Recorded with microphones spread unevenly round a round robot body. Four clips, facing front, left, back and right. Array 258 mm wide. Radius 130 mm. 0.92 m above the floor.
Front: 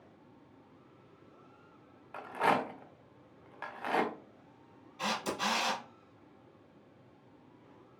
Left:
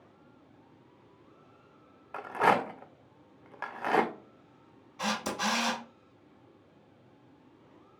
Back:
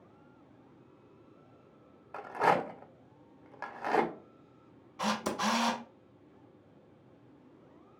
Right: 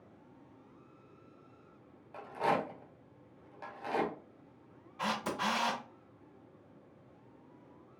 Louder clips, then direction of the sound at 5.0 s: Left 2 dB, back 3 dB; 150° left.